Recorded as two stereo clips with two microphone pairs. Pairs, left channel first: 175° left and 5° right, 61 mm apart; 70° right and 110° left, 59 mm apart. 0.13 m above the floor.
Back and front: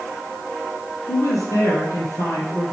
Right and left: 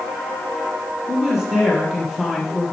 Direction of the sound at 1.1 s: 165° right.